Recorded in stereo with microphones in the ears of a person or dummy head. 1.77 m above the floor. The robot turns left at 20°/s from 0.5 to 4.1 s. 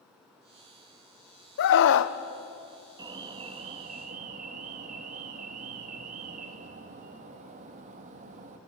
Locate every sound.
1.6 s a scream: 65° left (ahead or behind), 1.1 m; by 2.1 s 70° left (ahead or behind), 1.1 m
3.0 s an alarm: 15° right (ahead or behind), 1.5 m; by 8.6 s 35° right (ahead or behind), 1.5 m